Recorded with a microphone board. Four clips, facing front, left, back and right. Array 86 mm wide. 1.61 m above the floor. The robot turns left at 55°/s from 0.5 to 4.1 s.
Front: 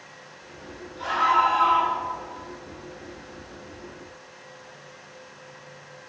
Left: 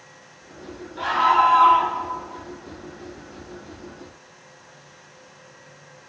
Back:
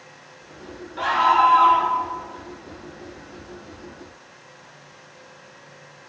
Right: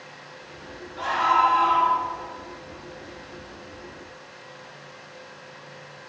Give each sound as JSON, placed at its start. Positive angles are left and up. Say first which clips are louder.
{"t": 1.0, "sound": "a scream", "louder": "left 3 dB, back 4 dB", "azimuth_deg": 170, "distance_m": 9.0}